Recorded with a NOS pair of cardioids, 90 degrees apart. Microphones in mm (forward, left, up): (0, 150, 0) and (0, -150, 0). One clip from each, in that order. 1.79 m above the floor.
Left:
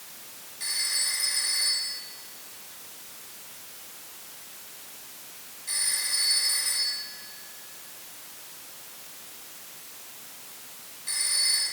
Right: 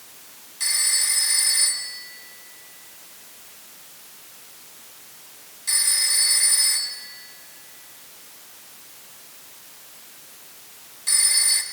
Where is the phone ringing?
60° right, 7 m.